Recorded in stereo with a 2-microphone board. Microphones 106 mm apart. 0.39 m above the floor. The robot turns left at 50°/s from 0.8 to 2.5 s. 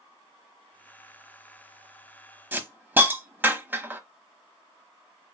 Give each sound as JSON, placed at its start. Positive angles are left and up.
{"t": 2.5, "sound": "a hiss", "side_deg": -20, "distance_m": 0.9}